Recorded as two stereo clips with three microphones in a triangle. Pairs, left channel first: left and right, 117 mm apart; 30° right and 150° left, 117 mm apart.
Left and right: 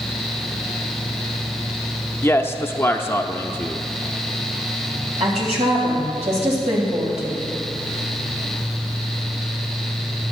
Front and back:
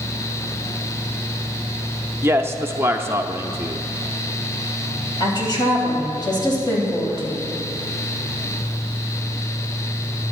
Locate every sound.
2.2 s a man speaking: 125° left, 0.7 m
5.2 s a woman speaking: 80° right, 3.5 m